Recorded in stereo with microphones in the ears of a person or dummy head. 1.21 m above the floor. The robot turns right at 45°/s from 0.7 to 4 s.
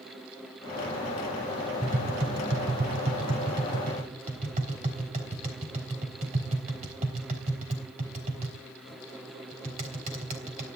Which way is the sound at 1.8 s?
35° right (ahead or behind).